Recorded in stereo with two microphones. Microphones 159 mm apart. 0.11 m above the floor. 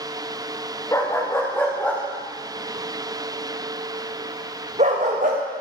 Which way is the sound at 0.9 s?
20° left (ahead or behind).